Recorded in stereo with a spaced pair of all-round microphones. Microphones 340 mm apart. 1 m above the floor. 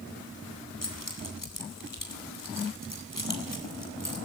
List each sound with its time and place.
0.8 s keys jangling: 75° left (ahead or behind), 3.5 m